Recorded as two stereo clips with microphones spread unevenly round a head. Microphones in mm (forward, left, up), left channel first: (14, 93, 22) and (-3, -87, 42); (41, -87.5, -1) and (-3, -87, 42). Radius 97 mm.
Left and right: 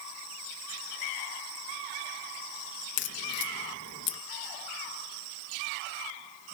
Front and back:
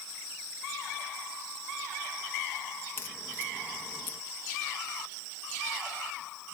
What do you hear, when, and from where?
3.0 s a crack: 60° left